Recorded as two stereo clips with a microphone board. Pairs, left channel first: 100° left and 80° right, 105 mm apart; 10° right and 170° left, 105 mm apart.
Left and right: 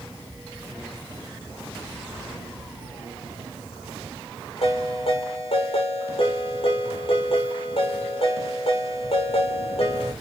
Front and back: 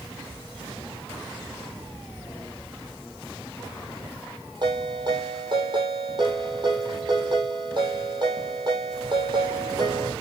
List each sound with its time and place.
4.6 s a ringtone: 125° left, 6 m